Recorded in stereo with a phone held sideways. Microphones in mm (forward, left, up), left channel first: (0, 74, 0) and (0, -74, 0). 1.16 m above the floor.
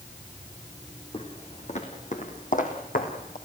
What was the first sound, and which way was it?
Footsteps, 45° left (ahead or behind).